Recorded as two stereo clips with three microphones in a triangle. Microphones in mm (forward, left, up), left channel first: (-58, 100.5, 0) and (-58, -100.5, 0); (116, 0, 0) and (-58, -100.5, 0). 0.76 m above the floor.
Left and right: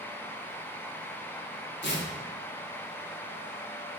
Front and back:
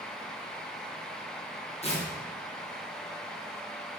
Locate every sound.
1.8 s tearing paper: 85° left, 1.3 m